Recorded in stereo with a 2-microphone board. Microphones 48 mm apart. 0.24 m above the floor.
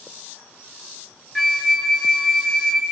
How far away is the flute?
About 1.3 m.